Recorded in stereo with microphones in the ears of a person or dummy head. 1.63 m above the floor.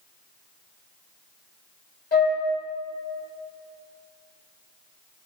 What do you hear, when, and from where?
2.1 s a flute: 50° left (ahead or behind), 2.5 m